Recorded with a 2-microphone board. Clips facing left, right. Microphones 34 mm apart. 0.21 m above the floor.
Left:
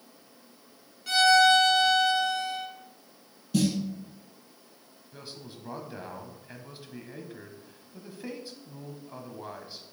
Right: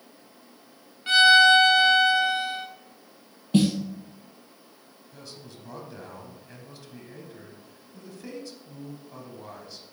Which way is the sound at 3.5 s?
40° right (ahead or behind).